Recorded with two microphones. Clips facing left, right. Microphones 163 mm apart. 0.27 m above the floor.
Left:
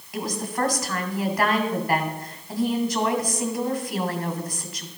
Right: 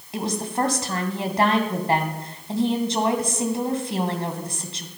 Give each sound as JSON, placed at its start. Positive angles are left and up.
{"t": 0.1, "sound": "a woman speaking", "side_deg": -25, "distance_m": 2.0}